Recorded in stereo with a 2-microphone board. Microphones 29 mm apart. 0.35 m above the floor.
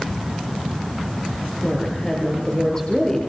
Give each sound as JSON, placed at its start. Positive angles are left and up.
{"t": 1.6, "sound": "a woman speaking", "side_deg": 25, "distance_m": 7.0}